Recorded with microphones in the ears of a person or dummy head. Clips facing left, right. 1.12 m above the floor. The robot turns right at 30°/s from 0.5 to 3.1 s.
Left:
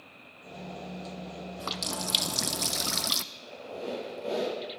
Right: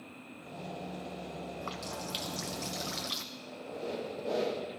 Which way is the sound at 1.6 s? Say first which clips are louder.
Left 3 dB; 70° left.